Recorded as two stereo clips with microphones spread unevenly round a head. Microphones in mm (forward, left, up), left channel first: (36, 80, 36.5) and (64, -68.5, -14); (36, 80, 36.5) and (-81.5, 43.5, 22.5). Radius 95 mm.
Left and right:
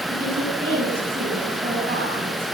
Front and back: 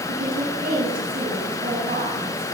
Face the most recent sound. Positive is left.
turn(degrees=-140)